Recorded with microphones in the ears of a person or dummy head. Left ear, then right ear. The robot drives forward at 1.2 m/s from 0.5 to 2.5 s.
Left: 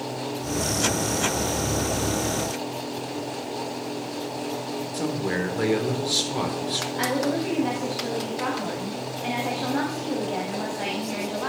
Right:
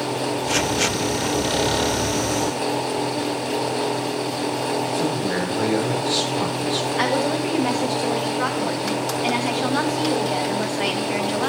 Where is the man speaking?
15° left (ahead or behind), 4 m.